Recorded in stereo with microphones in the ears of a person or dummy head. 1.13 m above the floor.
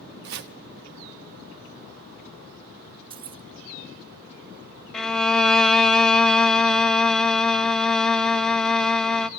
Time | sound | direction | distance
0.2 | chopping | 50° right (ahead or behind) | 0.7 m
3.1 | keys jangling | 25° right (ahead or behind) | 0.5 m
4.9 | a violin | 5° left (ahead or behind) | 0.6 m